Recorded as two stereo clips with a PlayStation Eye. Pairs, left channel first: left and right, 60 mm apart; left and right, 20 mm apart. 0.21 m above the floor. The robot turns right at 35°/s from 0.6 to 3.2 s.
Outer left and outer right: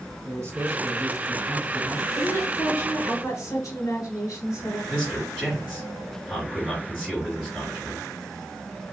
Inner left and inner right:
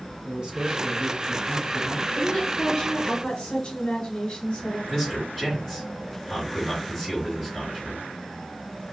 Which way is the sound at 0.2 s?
75° right.